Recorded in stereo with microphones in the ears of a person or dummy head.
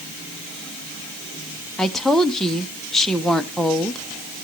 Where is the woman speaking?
Centre (ahead or behind), 0.8 m.